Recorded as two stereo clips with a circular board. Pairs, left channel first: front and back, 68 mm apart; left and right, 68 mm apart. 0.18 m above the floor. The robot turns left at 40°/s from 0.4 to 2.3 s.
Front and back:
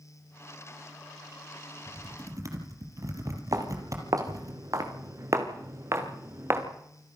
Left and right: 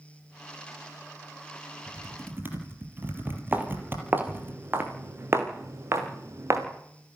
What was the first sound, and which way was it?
Typing on a keyboard, 130° right.